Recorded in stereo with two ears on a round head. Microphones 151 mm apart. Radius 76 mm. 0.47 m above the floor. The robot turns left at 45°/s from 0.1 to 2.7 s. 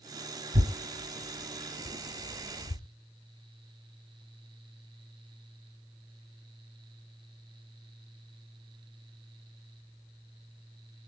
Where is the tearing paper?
45° right (ahead or behind), 1.1 m; by 2.8 s 50° left (ahead or behind), 1.1 m.